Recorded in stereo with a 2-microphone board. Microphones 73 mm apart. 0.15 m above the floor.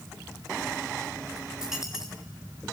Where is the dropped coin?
5° right (ahead or behind), 5 m.